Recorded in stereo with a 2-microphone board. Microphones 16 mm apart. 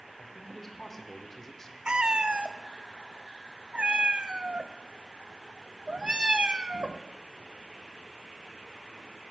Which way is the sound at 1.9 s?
70° right (ahead or behind).